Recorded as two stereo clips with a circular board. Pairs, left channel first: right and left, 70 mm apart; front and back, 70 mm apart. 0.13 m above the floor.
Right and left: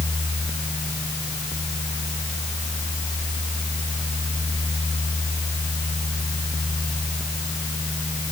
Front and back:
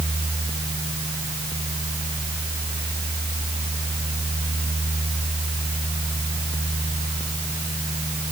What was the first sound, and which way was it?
Only background noise.